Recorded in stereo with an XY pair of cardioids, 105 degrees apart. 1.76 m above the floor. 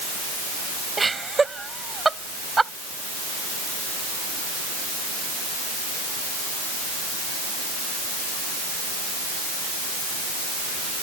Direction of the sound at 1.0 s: 20° right.